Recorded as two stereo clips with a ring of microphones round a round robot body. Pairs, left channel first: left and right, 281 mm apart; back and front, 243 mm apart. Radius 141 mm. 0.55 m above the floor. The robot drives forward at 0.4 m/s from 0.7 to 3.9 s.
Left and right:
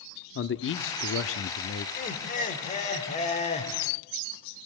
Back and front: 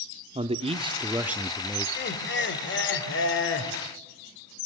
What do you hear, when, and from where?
0.3 s a man speaking: 60° left, 0.9 m; by 1.9 s 105° left, 0.8 m
2.0 s laughter: 145° left, 2.0 m; by 3.7 s 155° left, 2.5 m